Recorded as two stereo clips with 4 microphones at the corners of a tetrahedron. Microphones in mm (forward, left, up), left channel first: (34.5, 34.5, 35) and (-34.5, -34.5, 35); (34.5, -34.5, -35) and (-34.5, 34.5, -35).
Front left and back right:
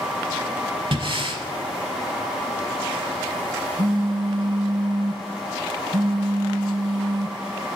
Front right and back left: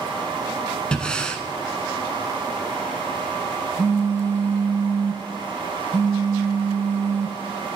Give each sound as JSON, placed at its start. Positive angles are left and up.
{"t": 0.9, "sound": "breathing", "azimuth_deg": -125, "distance_m": 0.9}
{"t": 3.8, "sound": "a phone buzzing", "azimuth_deg": -165, "distance_m": 0.6}